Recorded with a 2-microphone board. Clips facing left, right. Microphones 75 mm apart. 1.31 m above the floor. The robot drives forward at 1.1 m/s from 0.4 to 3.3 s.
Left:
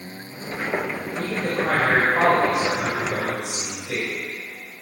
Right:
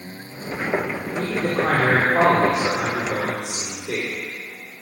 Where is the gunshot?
No gunshot in this recording.